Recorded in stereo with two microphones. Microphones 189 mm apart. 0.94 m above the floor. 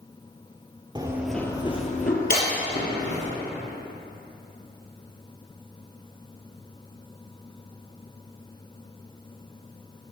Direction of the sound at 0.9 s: 25° right (ahead or behind).